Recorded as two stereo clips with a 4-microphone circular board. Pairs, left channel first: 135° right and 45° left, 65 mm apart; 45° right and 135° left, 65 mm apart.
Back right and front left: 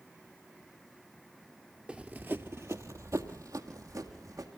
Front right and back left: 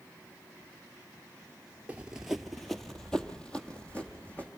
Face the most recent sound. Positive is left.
turn(degrees=25)